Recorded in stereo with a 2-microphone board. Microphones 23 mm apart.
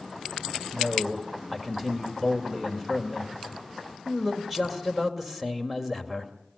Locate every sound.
0.7 s a man speaking: 5° right (ahead or behind), 2.5 m